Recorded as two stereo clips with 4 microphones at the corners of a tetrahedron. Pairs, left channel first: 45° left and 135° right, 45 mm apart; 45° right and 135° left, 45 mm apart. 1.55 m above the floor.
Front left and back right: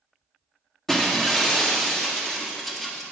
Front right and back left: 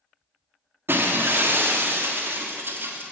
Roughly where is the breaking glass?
Behind left.